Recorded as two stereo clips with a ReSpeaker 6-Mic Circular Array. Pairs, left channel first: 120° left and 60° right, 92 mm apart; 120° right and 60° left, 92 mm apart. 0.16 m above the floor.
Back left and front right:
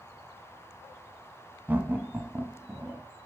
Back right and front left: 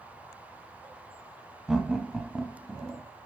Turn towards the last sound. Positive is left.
turn(degrees=-15)